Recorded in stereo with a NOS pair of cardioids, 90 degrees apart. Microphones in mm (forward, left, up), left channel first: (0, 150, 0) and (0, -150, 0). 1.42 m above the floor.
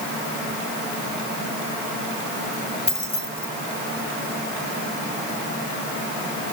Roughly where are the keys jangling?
Ahead.